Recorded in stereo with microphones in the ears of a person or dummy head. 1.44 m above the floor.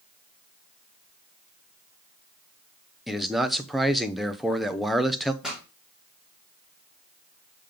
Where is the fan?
I don't hear a fan.